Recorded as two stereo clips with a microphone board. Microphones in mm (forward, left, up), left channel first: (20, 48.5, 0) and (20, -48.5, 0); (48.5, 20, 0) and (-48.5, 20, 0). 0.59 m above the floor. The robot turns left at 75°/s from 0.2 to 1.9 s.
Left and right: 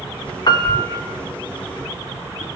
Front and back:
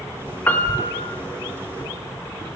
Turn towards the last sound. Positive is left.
turn(degrees=-40)